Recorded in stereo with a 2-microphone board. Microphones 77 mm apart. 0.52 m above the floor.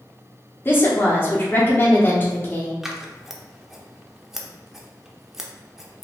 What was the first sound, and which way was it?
A woman speaking, 30° left (ahead or behind).